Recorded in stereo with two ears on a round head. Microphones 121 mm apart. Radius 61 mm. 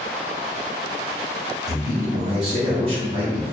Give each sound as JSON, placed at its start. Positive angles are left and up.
{"t": 1.7, "sound": "a man speaking", "side_deg": -55, "distance_m": 1.4}